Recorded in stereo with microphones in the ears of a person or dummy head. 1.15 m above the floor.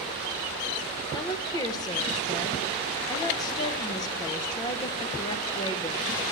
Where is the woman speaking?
25° left (ahead or behind), 0.5 m.